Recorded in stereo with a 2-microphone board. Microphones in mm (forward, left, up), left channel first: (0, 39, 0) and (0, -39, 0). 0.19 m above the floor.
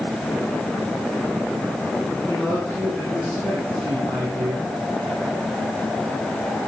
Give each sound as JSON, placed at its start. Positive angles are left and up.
{"t": 2.2, "sound": "a man speaking", "side_deg": -15, "distance_m": 9.5}